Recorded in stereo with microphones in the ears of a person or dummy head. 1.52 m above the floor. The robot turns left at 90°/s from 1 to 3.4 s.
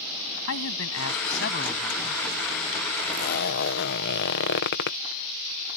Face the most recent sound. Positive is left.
turn(degrees=115)